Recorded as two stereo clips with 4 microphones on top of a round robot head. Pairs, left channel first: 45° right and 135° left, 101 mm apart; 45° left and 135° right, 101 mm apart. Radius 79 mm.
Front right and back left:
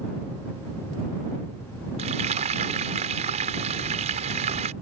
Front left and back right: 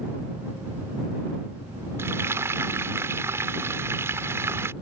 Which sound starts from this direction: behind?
Frying, at 2.0 s.